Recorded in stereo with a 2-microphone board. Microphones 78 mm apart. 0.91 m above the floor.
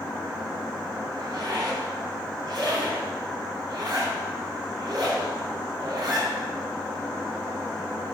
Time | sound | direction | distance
1.2 | a zipper | 65° right (ahead or behind) | 3.5 m